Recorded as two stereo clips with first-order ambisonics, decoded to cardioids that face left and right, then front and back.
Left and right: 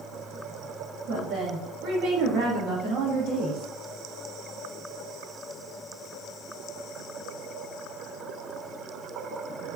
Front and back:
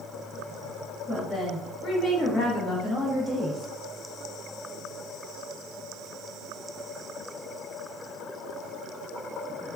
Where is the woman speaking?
70° right, 1.1 m.